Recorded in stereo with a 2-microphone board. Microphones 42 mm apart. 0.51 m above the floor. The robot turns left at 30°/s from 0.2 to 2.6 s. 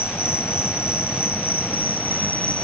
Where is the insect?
105° left, 1.3 m; by 2.7 s 30° left, 1.3 m.